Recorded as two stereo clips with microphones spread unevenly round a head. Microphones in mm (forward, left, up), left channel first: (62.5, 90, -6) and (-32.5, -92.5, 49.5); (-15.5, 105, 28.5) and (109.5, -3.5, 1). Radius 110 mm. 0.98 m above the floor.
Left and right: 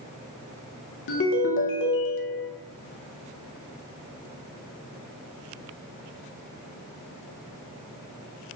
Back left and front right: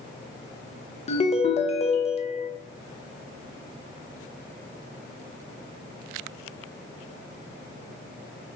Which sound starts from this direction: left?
A ringtone, at 1.1 s.